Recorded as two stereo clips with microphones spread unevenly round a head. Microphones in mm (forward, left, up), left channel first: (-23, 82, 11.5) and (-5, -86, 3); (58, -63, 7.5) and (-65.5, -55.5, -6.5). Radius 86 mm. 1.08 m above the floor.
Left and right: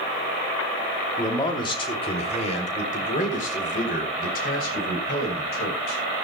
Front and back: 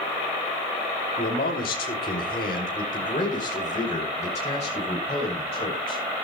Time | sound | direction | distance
1.2 | a man speaking | 25° left | 3 m